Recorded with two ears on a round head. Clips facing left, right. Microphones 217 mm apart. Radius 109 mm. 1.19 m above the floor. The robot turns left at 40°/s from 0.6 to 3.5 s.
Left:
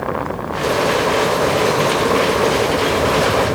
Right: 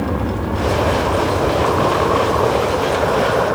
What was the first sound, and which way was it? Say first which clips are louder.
An aircraft: right 2 dB; 60° right (ahead or behind).